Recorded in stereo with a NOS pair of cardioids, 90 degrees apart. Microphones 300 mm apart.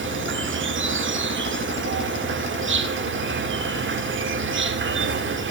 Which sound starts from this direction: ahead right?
An insect, at 0.0 s.